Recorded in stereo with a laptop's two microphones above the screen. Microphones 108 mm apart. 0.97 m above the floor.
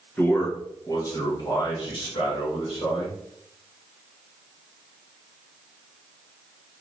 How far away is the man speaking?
About 1.0 m.